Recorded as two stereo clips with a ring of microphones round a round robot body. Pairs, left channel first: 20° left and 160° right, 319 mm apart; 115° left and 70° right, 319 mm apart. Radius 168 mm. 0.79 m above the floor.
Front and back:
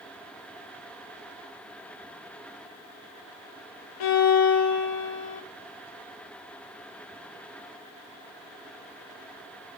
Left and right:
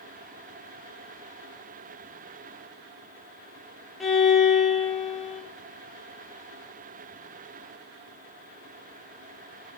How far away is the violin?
About 0.8 m.